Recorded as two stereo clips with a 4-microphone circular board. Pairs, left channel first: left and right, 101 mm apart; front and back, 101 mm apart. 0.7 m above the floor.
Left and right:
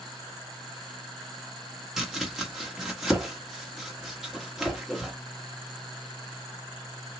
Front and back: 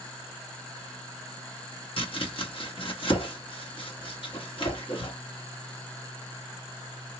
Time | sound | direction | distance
2.0 | chopping | 5° right | 1.2 m